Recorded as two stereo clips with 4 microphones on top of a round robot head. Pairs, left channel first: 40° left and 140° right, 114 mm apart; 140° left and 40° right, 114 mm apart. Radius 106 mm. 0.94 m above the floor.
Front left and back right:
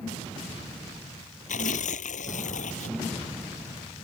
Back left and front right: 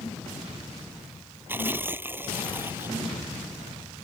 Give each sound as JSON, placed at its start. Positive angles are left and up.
{"t": 1.5, "sound": "tearing paper", "azimuth_deg": 30}